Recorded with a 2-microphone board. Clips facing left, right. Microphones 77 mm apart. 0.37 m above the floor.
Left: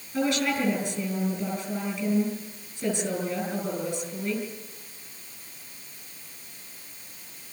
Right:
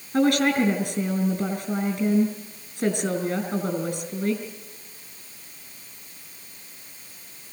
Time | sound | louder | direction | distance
0.1 | a woman speaking | right 6 dB | 55° right (ahead or behind) | 6 m